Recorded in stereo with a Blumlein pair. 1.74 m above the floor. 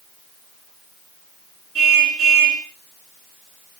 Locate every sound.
1.8 s a car horn: 30° right, 9 m